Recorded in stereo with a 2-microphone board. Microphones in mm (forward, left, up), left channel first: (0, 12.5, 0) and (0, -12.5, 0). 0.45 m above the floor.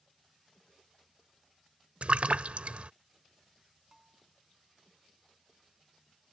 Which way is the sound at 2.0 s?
60° right (ahead or behind).